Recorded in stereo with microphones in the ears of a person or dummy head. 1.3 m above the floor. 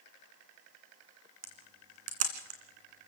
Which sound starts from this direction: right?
A camera shutter, at 1.4 s.